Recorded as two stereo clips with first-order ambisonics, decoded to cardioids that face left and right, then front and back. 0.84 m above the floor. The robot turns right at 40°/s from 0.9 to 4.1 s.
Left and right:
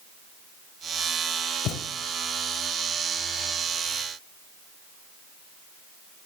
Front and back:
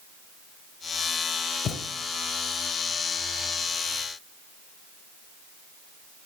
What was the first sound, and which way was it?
A thud, 50° left.